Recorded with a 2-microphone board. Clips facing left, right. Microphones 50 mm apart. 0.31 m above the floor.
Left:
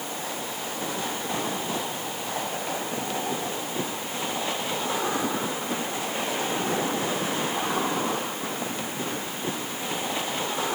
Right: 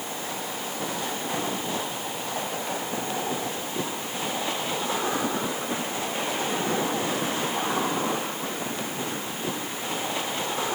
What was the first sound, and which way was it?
Only background noise.